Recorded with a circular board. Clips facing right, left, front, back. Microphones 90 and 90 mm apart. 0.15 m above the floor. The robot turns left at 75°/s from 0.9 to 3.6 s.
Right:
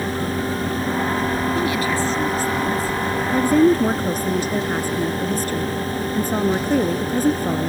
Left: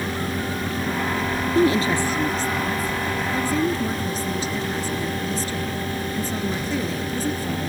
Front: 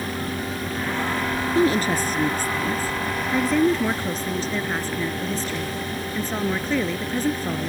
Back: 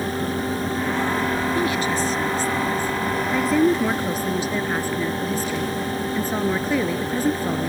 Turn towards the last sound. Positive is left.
turn(degrees=-100)